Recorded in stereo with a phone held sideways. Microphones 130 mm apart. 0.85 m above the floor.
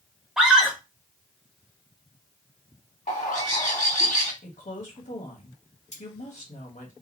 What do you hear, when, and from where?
0.4 s a scream: 5° right (ahead or behind), 1.4 m
3.1 s a bird: 60° left (ahead or behind), 1.7 m
4.4 s a woman speaking: 70° left (ahead or behind), 1.5 m
5.9 s cutlery clinking: 50° left (ahead or behind), 1.7 m